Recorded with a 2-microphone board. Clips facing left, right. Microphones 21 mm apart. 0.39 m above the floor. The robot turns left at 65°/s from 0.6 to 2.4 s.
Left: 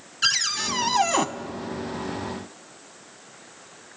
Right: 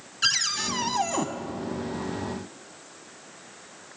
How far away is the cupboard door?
About 0.9 m.